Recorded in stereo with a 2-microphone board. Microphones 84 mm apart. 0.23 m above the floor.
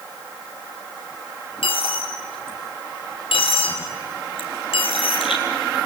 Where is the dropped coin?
85° left, 3.5 m.